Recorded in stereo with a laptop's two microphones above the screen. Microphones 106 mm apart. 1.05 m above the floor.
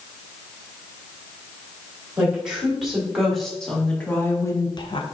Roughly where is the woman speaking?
Centre.